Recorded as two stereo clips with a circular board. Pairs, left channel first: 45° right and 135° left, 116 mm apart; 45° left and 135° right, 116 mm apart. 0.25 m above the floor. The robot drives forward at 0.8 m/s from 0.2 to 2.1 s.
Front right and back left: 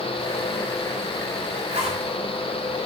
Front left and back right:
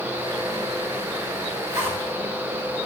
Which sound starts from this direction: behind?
A zipper, at 1.7 s.